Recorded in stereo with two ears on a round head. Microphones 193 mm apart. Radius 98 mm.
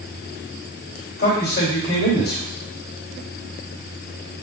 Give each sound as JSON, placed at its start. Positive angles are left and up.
{"t": 1.2, "sound": "a man speaking", "side_deg": 45, "distance_m": 2.5}